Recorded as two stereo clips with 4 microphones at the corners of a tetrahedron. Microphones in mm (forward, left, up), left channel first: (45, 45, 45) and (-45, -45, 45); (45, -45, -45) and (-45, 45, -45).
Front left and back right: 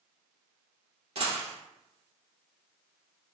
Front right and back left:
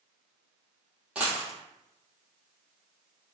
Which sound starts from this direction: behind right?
A dropped coin, at 1.1 s.